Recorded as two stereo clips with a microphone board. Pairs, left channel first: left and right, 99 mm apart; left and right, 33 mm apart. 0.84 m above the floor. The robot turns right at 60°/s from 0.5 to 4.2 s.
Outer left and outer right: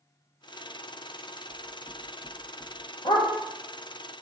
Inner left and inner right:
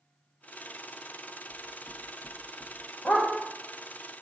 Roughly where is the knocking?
Left.